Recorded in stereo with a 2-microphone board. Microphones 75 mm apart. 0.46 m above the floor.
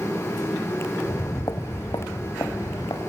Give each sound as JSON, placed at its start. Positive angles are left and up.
{"t": 1.1, "sound": "footsteps", "side_deg": 50, "distance_m": 0.9}